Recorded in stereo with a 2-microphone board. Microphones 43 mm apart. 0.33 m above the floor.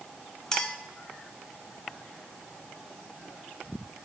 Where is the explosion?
No explosion in this recording.